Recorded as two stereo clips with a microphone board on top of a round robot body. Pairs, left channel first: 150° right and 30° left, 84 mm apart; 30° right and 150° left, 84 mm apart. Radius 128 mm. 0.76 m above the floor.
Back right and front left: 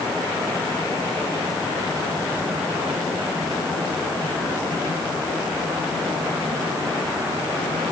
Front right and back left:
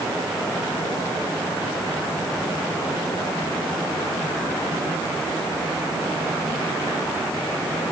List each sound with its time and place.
Only background noise.